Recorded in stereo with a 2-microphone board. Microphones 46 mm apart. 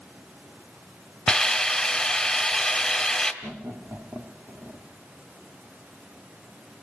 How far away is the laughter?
About 2.5 m.